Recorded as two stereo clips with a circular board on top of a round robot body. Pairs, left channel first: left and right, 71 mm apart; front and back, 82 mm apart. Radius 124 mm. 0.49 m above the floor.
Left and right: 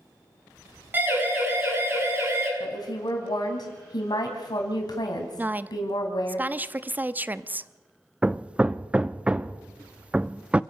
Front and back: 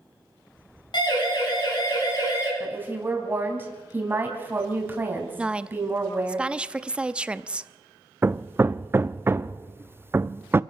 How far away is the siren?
About 7.5 m.